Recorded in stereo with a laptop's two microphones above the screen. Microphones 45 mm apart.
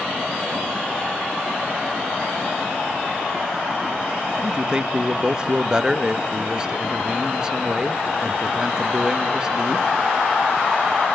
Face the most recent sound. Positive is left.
turn(degrees=-15)  # may be behind; listen again after turning